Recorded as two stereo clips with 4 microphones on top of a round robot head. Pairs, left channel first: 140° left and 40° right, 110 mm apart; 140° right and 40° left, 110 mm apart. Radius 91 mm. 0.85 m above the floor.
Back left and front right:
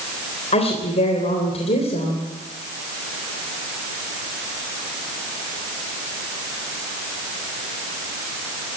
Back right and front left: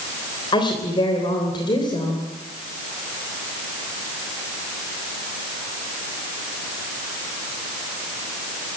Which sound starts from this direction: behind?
A woman speaking, at 0.5 s.